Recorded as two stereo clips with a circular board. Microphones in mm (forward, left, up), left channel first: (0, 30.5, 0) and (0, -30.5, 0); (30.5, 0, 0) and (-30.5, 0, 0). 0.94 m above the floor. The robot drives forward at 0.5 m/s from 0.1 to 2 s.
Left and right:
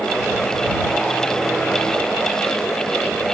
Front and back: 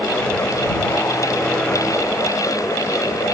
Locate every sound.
Only background noise.